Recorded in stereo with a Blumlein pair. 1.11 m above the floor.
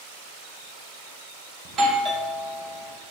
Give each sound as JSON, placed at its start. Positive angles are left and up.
{"t": 1.6, "sound": "a doorbell", "azimuth_deg": -25, "distance_m": 2.0}